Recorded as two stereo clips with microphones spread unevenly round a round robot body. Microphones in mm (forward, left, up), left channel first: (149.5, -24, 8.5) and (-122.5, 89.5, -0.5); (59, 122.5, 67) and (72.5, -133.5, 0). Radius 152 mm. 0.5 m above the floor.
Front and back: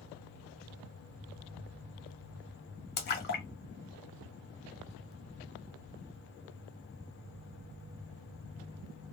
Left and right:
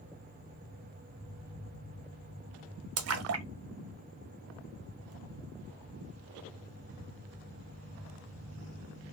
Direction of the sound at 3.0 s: 80° right.